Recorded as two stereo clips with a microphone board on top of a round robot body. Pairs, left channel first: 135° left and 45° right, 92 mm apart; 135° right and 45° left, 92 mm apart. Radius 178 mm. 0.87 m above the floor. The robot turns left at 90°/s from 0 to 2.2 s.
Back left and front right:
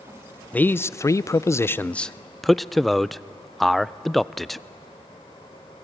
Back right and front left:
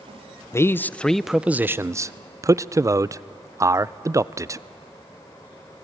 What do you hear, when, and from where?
0.5 s a man speaking: 165° right, 0.5 m; by 4.6 s 45° left, 0.5 m